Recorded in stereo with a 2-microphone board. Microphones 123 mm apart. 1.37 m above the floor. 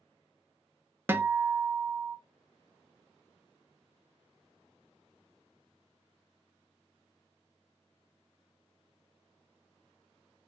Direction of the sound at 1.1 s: 15° right (ahead or behind).